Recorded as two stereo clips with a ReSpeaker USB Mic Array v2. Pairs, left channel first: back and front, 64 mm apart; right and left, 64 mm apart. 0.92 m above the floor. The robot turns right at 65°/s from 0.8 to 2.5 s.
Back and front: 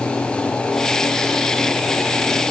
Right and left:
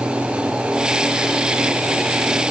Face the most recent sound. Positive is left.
No sound to turn to.